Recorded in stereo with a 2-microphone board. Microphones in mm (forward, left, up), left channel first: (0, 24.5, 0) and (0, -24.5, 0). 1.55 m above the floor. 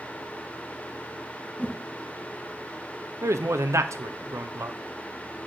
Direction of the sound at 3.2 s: 80° right.